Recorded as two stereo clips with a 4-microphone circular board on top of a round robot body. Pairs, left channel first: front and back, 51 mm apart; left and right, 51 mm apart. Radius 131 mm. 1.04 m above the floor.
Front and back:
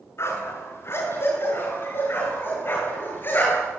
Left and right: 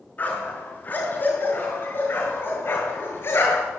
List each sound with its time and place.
0.2 s a dog barking: 30° left, 7 m; by 3.8 s 45° left, 9.5 m